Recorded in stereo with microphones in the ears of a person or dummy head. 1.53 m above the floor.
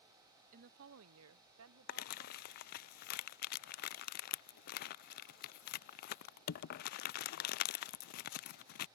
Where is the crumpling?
50° left (ahead or behind).